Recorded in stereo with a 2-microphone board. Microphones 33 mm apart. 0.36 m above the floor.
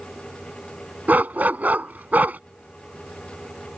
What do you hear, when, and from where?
1.1 s a dog barking: 65° right (ahead or behind)